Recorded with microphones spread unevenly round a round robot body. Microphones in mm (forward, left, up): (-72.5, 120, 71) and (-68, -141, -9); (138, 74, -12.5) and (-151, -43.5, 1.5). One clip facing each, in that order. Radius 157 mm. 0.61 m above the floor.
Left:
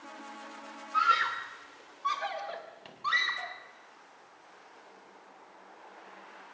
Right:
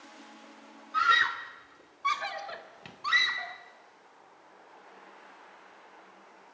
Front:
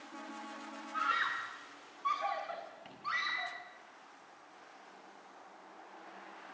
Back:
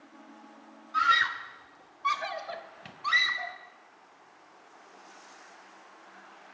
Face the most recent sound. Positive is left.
turn(degrees=-125)